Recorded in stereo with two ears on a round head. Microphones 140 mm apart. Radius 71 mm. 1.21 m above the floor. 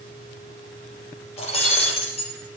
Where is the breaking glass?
40° left (ahead or behind), 4.5 m.